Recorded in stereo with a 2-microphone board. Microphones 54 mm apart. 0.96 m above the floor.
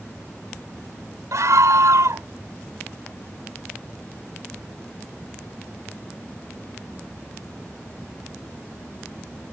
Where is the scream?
75° right (ahead or behind).